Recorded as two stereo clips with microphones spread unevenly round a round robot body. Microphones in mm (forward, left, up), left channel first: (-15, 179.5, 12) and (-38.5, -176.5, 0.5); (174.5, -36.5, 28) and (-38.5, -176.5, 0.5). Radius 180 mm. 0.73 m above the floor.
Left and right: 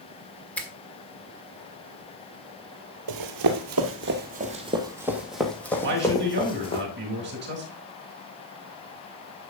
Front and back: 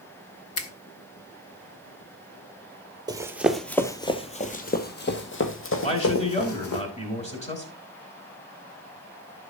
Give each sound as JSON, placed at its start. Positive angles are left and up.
{"t": 0.6, "sound": "a finger snap", "azimuth_deg": 0, "distance_m": 1.4}
{"t": 3.1, "sound": "running footsteps", "azimuth_deg": -70, "distance_m": 1.3}
{"t": 5.8, "sound": "a man speaking", "azimuth_deg": -30, "distance_m": 4.5}